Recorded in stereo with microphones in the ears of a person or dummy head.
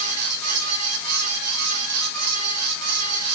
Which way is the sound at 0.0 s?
85° right.